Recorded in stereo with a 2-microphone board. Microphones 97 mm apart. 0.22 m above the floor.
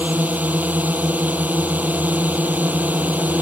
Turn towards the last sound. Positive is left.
turn(degrees=-15)  # may be behind; listen again after turning